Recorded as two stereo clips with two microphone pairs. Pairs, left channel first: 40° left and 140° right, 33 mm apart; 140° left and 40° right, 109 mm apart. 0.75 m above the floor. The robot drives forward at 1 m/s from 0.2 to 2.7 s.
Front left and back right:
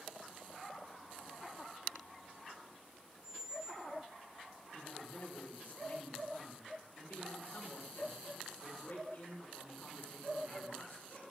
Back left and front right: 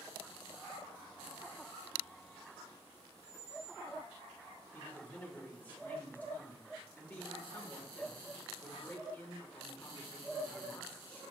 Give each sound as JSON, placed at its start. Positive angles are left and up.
{"t": 3.2, "sound": "a squeak", "azimuth_deg": 160, "distance_m": 2.0}
{"t": 4.7, "sound": "a man speaking", "azimuth_deg": 65, "distance_m": 2.5}